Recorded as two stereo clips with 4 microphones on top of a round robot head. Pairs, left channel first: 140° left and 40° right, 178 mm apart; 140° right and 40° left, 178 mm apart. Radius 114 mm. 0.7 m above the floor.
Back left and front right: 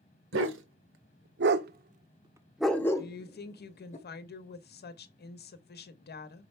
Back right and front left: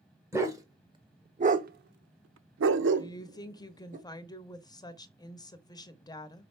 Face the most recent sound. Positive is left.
turn(degrees=155)